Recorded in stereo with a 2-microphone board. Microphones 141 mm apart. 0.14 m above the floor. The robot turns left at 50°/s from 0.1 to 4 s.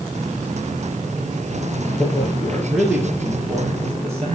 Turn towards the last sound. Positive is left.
turn(degrees=-70)